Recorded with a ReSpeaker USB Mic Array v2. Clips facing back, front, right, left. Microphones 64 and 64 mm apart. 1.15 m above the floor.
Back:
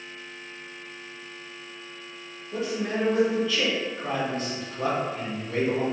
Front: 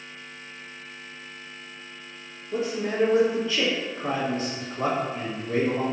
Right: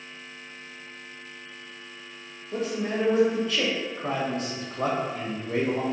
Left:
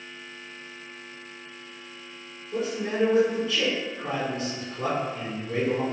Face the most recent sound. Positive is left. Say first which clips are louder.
# front 2 dB, even
turn(degrees=-55)